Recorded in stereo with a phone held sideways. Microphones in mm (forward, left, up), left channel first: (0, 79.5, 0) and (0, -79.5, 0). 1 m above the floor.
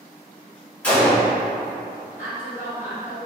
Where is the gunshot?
10° left (ahead or behind), 1.5 m.